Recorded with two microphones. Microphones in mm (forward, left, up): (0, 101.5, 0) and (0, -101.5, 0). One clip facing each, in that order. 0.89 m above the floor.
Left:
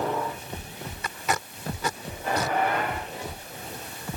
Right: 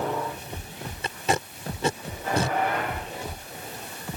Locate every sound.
1.0 s tape being pulled: 30° right (ahead or behind)